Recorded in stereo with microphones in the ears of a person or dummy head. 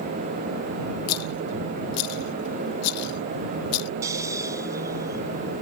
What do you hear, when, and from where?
1.1 s a rattle: 75° left (ahead or behind)
4.0 s snoring: 20° right (ahead or behind)